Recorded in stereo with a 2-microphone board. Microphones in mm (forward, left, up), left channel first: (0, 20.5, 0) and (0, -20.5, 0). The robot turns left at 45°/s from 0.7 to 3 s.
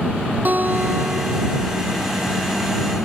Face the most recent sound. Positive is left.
turn(degrees=-150)